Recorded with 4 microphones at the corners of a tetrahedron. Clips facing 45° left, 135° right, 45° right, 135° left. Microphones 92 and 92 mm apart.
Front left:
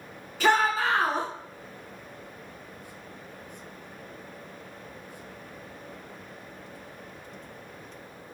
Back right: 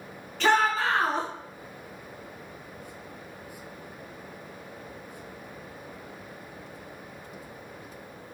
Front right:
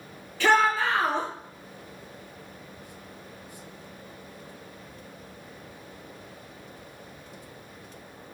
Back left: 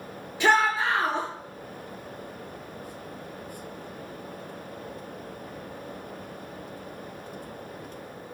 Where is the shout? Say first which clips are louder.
Even, front right 1 dB; 115° left, 1.1 m.